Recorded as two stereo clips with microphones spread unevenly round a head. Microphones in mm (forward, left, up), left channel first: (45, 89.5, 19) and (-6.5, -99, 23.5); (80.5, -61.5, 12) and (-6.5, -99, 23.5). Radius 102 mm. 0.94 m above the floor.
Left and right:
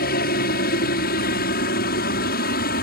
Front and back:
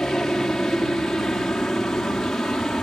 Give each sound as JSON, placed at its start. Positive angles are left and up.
{"t": 0.0, "sound": "a helicopter", "azimuth_deg": 110}